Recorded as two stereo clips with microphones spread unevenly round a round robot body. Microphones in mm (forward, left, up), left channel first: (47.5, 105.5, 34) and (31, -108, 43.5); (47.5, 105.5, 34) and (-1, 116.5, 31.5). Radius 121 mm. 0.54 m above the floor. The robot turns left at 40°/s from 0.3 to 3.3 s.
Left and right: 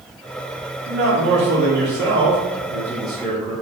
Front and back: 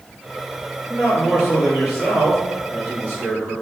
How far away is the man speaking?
About 1.3 m.